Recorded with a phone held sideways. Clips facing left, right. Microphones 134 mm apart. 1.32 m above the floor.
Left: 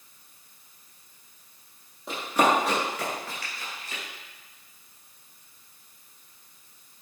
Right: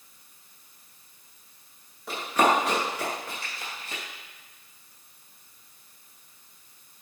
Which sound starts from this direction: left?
Running footsteps, at 2.1 s.